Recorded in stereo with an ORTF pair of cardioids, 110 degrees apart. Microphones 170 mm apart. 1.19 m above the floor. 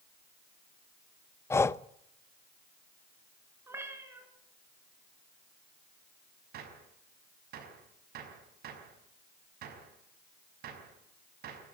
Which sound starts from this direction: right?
A gunshot, at 6.5 s.